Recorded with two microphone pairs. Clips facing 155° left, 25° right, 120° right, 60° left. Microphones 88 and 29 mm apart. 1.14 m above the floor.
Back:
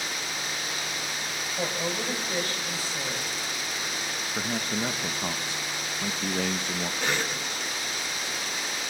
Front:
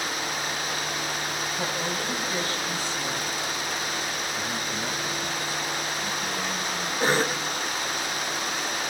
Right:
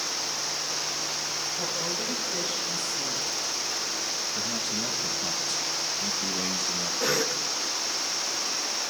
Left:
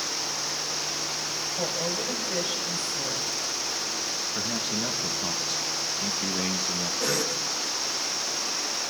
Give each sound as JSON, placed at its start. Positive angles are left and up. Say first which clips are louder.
{"t": 1.6, "sound": "a woman speaking", "louder": "back 2 dB, left 4 dB", "azimuth_deg": 100, "distance_m": 6.0}
{"t": 4.3, "sound": "a man speaking", "louder": "back 1 dB, left 1 dB", "azimuth_deg": 135, "distance_m": 0.9}
{"t": 7.0, "sound": "a cough", "louder": "front 8 dB, right 2 dB", "azimuth_deg": -55, "distance_m": 0.9}